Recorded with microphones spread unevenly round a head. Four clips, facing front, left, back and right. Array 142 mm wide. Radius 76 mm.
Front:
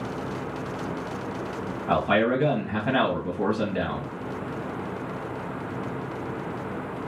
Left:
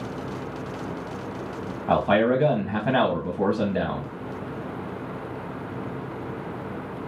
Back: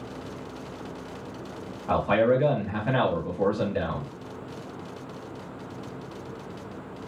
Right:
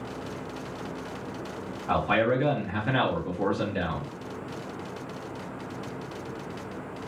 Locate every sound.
1.9 s a man speaking: 75° left, 1.8 m